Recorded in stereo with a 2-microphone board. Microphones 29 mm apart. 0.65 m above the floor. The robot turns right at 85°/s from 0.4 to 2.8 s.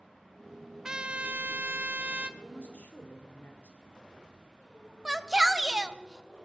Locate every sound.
0.8 s a trumpet: 160° right, 0.6 m; by 2.3 s 35° right, 0.6 m
2.4 s a woman speaking: 40° left, 2.5 m; by 3.8 s 75° left, 2.5 m
5.0 s a shout: 15° right (ahead or behind), 0.7 m